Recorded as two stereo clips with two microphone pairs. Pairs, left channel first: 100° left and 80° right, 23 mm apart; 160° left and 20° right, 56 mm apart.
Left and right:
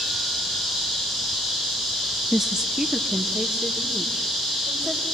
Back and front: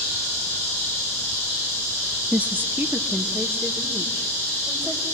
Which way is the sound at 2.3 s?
25° right.